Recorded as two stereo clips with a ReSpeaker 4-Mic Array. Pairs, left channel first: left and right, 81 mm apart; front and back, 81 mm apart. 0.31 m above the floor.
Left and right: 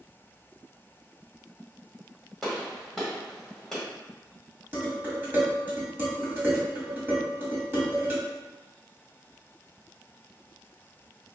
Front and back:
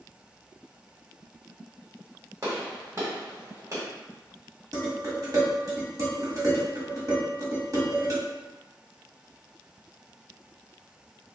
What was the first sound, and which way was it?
A gunshot, 175° left.